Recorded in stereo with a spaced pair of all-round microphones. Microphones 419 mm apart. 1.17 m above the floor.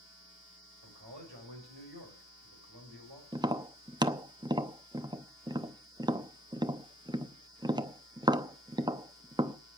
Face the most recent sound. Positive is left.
turn(degrees=-10)  # may be behind; listen again after turning